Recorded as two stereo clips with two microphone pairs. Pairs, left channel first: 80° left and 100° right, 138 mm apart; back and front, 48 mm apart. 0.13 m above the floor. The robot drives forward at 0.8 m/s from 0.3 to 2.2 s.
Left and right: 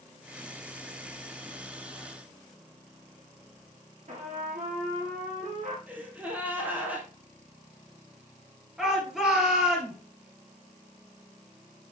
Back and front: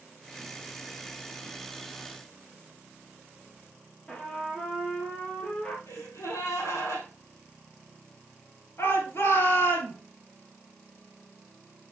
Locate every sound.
4.1 s a trumpet: 115° right, 2.5 m
5.9 s a gasp: straight behind, 2.5 m
8.8 s a shout: 175° left, 2.5 m